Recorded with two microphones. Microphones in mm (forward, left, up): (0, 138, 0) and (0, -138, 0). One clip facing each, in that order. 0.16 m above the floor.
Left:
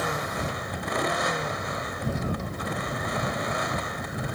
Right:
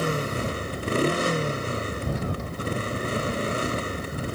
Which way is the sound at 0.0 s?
35° right (ahead or behind).